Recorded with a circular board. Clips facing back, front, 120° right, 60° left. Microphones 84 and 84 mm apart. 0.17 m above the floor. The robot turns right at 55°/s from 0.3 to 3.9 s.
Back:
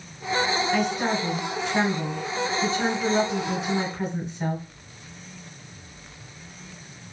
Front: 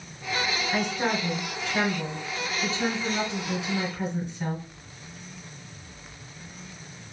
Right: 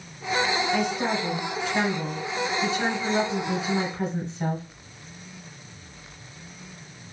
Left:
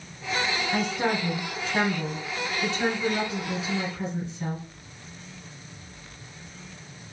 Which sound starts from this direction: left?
A woman speaking, at 0.7 s.